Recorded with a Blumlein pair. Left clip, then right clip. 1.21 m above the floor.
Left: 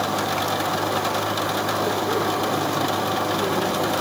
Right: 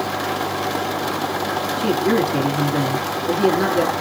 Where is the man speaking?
50° right, 2.5 m.